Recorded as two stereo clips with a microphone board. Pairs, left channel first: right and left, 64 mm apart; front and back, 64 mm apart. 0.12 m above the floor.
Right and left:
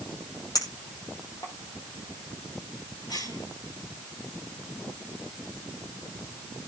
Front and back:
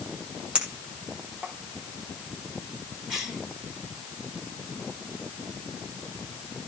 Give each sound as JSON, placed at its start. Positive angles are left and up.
{"t": 0.6, "sound": "a clink", "azimuth_deg": -110, "distance_m": 3.0}
{"t": 3.1, "sound": "a cough", "azimuth_deg": -100, "distance_m": 8.0}